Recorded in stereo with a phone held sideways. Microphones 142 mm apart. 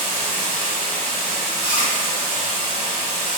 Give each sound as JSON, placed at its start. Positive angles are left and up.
{"t": 0.0, "sound": "running water", "side_deg": 45, "distance_m": 1.9}
{"t": 1.6, "sound": "chewing", "side_deg": -10, "distance_m": 0.9}